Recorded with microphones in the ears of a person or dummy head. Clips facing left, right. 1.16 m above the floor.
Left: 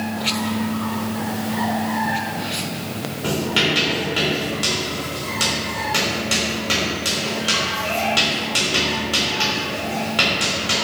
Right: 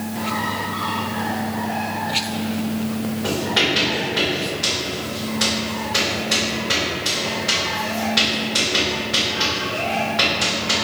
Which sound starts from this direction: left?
Writing, at 3.2 s.